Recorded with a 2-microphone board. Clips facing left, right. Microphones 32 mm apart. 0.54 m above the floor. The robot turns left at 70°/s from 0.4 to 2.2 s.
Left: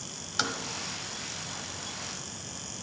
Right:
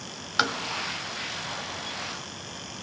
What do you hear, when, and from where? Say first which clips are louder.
0.4 s tapping: right 6 dB; 30° right (ahead or behind), 0.8 m; by 0.6 s 15° right (ahead or behind), 0.8 m